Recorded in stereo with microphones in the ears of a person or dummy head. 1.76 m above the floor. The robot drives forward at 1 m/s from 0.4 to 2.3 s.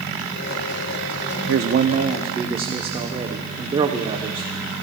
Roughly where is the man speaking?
Right.